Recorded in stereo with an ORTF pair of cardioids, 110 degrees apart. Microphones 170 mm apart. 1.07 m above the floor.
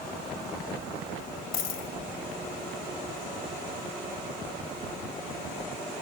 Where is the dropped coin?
60° left, 2.5 m.